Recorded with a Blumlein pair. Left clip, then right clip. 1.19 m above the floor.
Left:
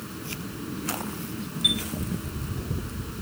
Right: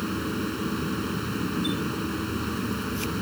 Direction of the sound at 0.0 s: 25° right.